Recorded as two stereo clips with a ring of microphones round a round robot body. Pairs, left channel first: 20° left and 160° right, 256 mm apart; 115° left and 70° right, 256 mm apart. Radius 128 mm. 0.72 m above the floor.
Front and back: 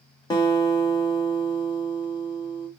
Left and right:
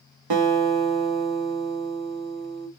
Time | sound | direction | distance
0.3 | a guitar | 55° right | 0.8 m